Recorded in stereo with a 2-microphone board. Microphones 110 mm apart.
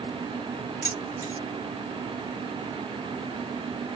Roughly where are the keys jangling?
Left.